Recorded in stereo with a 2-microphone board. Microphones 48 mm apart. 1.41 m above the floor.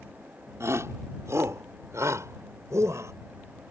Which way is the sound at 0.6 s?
75° right (ahead or behind).